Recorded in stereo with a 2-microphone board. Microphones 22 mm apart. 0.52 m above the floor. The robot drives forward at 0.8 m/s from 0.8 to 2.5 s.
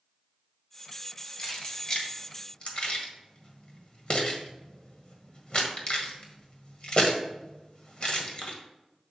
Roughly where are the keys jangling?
Left.